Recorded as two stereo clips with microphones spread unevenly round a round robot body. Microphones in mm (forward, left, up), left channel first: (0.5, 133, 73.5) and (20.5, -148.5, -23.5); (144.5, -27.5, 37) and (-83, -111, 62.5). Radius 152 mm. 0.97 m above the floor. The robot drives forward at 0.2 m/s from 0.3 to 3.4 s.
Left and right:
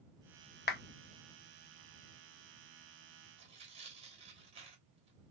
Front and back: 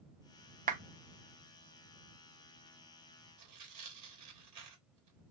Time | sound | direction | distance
0.7 | a clap | 160° left | 0.6 m
3.4 | tearing paper | 160° right | 0.9 m